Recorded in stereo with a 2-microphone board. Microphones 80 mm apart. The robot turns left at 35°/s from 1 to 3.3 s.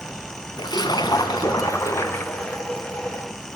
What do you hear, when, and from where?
0.6 s a splash: 75° left, 2.5 m; by 2.6 s 15° left, 2.5 m